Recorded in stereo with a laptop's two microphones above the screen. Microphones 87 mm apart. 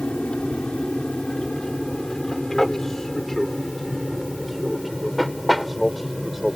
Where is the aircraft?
10° left (ahead or behind); by 6.6 s 5° right (ahead or behind).